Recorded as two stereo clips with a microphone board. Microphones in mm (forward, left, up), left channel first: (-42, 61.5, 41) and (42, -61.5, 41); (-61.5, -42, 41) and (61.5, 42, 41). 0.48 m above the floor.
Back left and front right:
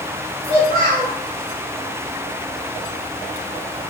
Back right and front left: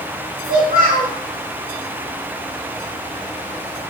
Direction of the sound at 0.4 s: 20° left.